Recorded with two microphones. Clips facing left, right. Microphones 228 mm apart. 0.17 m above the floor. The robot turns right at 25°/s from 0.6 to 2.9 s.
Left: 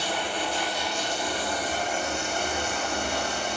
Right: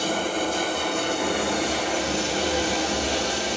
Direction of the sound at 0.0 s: 135° right.